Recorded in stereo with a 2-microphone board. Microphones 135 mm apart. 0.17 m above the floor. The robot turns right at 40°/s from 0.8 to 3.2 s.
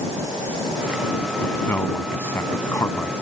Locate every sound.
1.4 s a man speaking: 15° left (ahead or behind)